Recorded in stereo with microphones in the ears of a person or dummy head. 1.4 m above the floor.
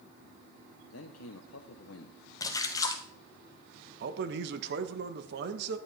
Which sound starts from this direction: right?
A man speaking, at 4.0 s.